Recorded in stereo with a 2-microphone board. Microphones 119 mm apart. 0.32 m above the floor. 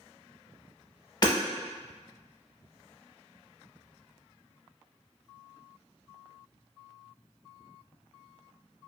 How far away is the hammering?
About 0.7 m.